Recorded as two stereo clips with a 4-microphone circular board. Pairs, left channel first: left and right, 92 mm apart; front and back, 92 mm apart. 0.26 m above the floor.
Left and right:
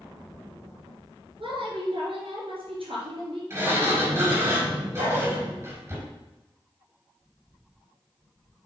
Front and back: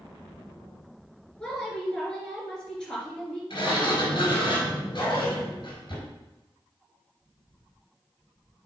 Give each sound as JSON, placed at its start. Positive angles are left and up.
{"t": 1.4, "sound": "a woman speaking", "azimuth_deg": -85, "distance_m": 3.5}
{"t": 3.5, "sound": "a sliding door", "azimuth_deg": -30, "distance_m": 4.0}
{"t": 5.0, "sound": "a dog barking", "azimuth_deg": -85, "distance_m": 4.0}